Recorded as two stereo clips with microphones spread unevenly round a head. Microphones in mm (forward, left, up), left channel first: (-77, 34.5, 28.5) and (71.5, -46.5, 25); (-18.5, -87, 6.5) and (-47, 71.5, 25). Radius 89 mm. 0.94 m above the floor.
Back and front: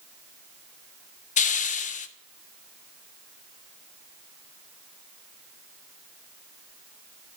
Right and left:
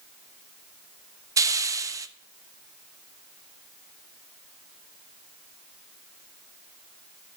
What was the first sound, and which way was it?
A hiss, 170° left.